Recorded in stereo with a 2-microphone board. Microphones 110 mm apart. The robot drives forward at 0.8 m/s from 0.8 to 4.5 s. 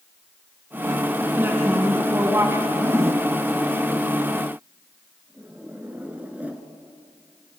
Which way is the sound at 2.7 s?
25° right (ahead or behind).